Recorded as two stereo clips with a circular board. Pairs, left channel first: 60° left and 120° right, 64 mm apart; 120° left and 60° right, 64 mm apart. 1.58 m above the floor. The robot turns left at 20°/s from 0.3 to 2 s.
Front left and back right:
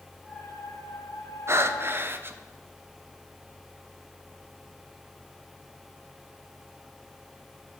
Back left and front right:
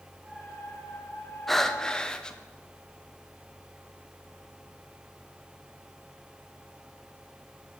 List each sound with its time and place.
1.5 s breathing: 155° right, 0.6 m; by 2.4 s 165° right, 0.6 m